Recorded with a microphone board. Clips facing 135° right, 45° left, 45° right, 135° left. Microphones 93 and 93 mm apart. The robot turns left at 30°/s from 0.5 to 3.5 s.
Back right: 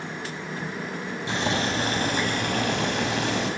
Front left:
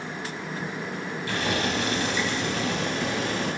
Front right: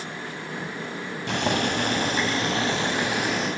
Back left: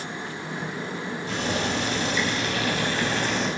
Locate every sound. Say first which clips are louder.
1.3 s boiling: back right 1 dB, front right 3 dB; 65° right, 4.5 m; by 3.5 s 130° right, 4.5 m